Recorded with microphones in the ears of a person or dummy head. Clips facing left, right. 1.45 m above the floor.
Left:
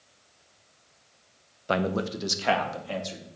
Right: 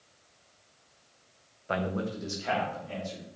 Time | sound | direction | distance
1.7 | a man speaking | 50° left (ahead or behind) | 0.7 m